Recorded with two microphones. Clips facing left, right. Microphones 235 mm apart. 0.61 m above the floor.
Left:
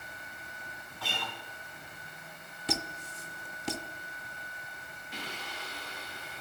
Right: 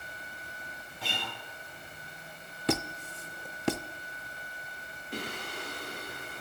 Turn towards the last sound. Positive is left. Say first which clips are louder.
# right 6 dB
turn(degrees=-50)  # may be behind; listen again after turning